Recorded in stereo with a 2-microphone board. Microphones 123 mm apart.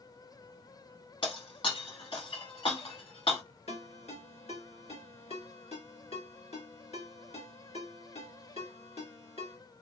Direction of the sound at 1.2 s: 50° left (ahead or behind).